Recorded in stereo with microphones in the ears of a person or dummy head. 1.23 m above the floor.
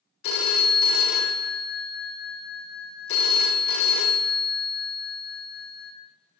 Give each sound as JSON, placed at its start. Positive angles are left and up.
{"t": 0.2, "sound": "a phone ringing", "side_deg": 60, "distance_m": 1.3}